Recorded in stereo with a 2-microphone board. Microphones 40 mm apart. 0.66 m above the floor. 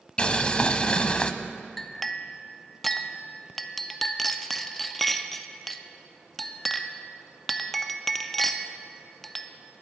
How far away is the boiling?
About 0.5 m.